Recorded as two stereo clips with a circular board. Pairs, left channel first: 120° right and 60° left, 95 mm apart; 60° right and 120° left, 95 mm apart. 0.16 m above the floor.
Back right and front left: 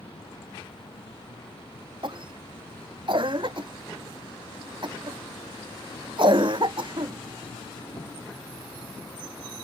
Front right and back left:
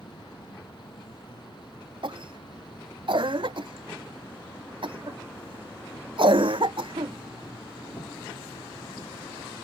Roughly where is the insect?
Right.